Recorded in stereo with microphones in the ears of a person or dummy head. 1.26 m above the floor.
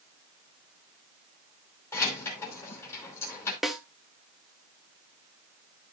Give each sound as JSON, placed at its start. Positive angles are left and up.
{"t": 1.9, "sound": "keys jangling", "side_deg": 5, "distance_m": 2.5}
{"t": 3.6, "sound": "a snare drum", "side_deg": 5, "distance_m": 0.6}